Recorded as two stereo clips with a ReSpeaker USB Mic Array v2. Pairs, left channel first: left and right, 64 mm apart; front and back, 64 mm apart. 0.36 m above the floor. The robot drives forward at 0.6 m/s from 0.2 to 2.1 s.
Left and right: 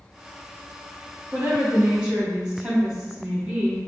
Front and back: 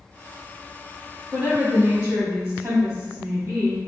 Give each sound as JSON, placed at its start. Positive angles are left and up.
{"t": 1.3, "sound": "a woman speaking", "azimuth_deg": -145, "distance_m": 1.5}